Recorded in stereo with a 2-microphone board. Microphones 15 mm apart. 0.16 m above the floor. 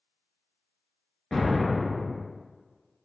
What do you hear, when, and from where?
1.3 s an explosion: 45° left (ahead or behind), 0.7 m